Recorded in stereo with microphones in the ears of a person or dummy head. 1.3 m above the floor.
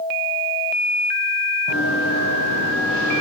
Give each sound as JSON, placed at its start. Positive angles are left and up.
{"t": 1.7, "sound": "running footsteps", "side_deg": -70, "distance_m": 4.0}